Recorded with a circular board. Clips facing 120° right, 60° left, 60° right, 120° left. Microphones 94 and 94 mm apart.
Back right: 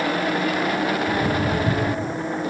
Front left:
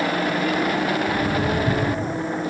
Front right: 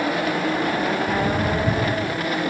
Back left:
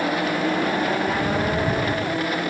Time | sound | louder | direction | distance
1.1 | footsteps | even, front right 1 dB | 140° right | 9.5 m